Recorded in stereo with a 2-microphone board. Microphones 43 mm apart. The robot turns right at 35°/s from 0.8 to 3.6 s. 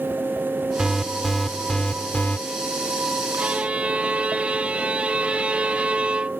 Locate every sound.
0.8 s an alarm: 15° right; by 2.4 s 40° left
3.4 s a violin: 30° right (ahead or behind)